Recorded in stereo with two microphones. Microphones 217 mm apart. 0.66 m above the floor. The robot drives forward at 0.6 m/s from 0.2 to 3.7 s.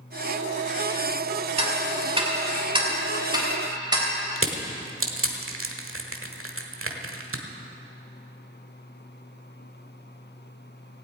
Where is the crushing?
75° right (ahead or behind), 1.3 m.